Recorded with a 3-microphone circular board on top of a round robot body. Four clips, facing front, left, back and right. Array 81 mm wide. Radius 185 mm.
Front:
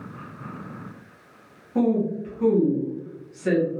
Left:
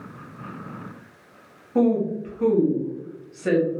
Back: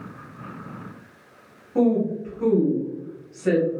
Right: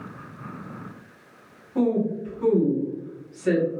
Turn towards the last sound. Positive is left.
turn(degrees=90)